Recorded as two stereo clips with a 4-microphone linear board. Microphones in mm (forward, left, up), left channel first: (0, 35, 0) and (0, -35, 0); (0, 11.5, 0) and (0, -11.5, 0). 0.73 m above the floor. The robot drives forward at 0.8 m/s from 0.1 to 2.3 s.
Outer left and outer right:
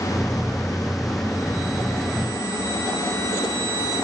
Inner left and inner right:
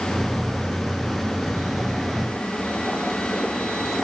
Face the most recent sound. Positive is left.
No sound to turn to.